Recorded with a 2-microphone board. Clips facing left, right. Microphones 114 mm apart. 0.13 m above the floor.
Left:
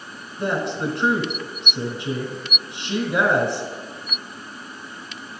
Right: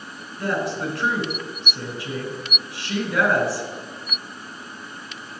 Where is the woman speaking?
20° left (ahead or behind), 1.2 m.